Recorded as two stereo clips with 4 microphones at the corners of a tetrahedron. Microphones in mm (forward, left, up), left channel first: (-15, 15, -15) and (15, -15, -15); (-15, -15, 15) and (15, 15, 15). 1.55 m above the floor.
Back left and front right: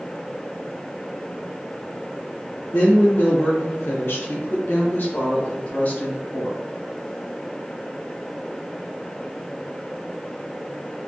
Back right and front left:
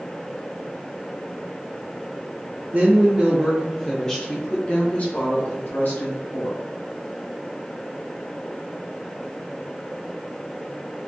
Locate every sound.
2.7 s a woman speaking: 90° left, 0.8 m; by 6.6 s 165° right, 1.7 m